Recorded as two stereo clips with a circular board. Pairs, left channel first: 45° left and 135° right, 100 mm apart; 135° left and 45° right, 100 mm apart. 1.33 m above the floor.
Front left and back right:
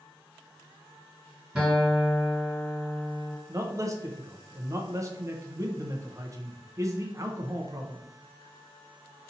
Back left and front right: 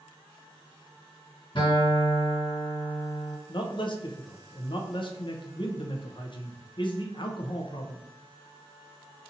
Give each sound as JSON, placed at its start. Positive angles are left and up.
{"t": 1.6, "sound": "a guitar", "azimuth_deg": 150, "distance_m": 2.0}
{"t": 3.5, "sound": "a man speaking", "azimuth_deg": 170, "distance_m": 0.6}